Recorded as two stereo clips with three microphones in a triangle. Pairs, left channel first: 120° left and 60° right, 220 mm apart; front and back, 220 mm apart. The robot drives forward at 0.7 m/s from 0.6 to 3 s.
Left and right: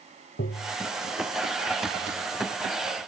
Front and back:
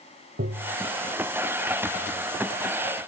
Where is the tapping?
150° left.